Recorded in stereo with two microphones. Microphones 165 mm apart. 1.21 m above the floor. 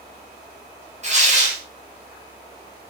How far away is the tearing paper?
About 5 m.